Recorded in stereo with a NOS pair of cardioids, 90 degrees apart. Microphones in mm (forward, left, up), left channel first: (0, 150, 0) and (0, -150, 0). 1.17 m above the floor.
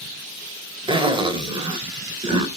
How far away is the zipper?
About 4 m.